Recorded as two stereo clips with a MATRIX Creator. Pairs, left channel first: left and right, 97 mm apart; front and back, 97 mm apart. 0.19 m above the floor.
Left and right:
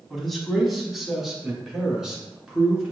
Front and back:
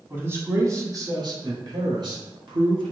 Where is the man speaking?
175° left, 1.1 m; by 2.9 s 170° right, 2 m.